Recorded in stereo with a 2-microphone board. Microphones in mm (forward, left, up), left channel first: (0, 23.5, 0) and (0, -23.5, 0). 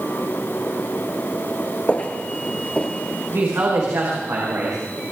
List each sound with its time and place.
1.9 s footsteps: 30° left (ahead or behind), 1.4 m; by 3.7 s 25° left (ahead or behind), 2 m
3.3 s a woman speaking: 85° right, 4.5 m